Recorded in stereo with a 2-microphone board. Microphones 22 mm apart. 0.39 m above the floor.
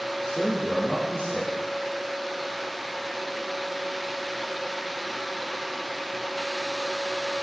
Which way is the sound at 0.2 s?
25° left (ahead or behind).